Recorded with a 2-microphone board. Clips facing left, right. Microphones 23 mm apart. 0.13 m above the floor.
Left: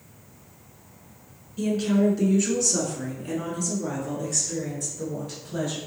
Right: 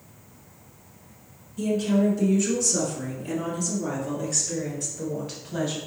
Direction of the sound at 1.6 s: 35° left (ahead or behind).